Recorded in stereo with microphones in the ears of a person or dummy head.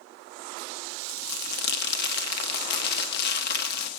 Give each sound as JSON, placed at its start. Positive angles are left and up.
{"t": 1.1, "sound": "crumpling", "side_deg": 65, "distance_m": 1.1}